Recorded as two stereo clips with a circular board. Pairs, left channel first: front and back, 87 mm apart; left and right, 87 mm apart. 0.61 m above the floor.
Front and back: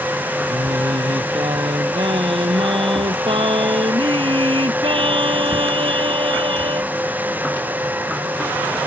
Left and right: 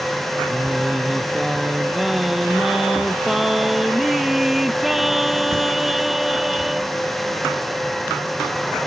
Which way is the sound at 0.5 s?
175° right.